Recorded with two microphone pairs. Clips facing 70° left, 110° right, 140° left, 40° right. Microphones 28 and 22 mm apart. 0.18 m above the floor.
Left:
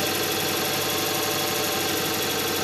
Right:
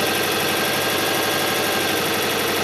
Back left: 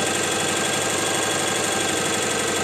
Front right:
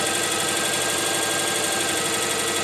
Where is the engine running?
150° right, 3.5 m.